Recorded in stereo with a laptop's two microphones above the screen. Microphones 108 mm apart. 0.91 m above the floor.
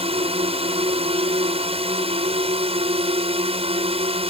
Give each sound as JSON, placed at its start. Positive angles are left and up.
{"t": 0.0, "sound": "a drone", "side_deg": -65}